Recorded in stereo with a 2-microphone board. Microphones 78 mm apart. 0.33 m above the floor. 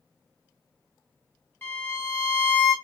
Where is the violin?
25° left (ahead or behind), 1.1 m.